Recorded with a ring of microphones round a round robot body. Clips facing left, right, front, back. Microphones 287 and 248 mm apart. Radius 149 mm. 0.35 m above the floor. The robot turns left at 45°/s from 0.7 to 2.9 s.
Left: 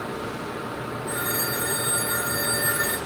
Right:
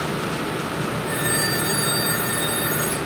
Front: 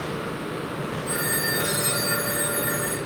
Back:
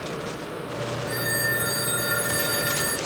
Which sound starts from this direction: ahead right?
A phone ringing, at 1.1 s.